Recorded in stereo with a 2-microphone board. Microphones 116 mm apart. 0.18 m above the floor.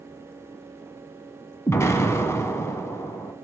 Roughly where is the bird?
No bird in this recording.